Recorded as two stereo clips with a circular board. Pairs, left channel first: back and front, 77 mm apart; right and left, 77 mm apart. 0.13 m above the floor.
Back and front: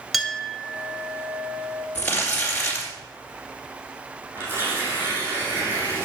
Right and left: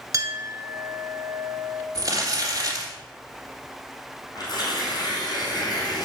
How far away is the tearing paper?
About 3.5 m.